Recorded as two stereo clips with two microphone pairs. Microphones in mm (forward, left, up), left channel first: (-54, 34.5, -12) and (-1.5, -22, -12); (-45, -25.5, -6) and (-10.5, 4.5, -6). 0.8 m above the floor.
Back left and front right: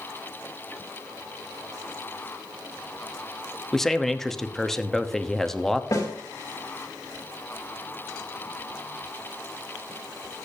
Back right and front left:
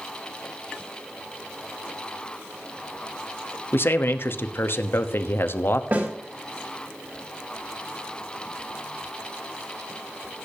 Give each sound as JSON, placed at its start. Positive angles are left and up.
{"t": 3.7, "sound": "a man speaking", "azimuth_deg": -140, "distance_m": 1.0}
{"t": 5.9, "sound": "a snare drum", "azimuth_deg": 85, "distance_m": 3.5}